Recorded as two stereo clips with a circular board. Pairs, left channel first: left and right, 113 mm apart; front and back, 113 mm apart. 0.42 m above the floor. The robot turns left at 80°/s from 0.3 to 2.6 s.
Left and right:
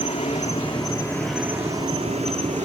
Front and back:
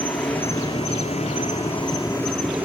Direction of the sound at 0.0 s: 85° left.